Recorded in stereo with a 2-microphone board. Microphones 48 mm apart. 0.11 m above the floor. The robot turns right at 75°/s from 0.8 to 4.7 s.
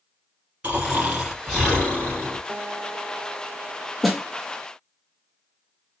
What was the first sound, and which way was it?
Snoring, 40° right.